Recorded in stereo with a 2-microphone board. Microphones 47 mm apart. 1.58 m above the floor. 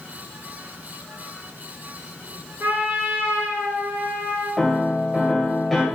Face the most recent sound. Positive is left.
turn(degrees=0)  # may be behind; listen again after turning